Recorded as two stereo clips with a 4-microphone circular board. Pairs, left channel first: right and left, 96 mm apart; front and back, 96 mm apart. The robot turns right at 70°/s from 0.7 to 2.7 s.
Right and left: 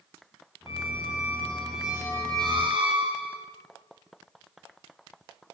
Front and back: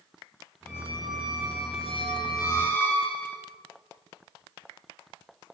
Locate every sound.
0.7 s a squeak: 70° right, 3.5 m; by 3.4 s 70° left, 3.5 m